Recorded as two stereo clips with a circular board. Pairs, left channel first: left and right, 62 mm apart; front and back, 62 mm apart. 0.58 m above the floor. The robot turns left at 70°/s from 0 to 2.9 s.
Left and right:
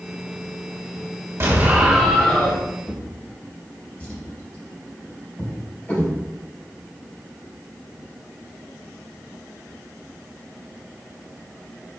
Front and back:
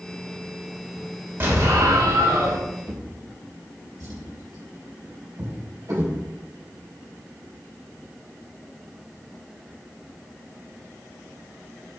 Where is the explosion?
130° right, 2.5 m; by 2.6 s 145° left, 2.5 m.